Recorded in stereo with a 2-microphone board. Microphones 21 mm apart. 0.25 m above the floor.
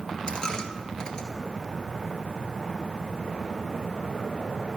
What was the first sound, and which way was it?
A dropped coin, 40° left (ahead or behind).